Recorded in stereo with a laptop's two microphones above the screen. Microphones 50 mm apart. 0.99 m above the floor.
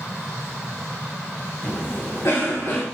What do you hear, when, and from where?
1.6 s a cough: 50° left (ahead or behind), 1.6 m